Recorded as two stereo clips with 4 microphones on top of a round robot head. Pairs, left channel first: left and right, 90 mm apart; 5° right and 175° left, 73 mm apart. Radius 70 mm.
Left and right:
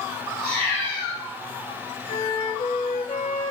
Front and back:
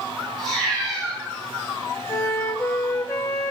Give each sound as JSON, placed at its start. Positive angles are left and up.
{"t": 0.4, "sound": "a cat meowing", "azimuth_deg": -90, "distance_m": 2.0}
{"t": 2.1, "sound": "a flute", "azimuth_deg": 45, "distance_m": 0.6}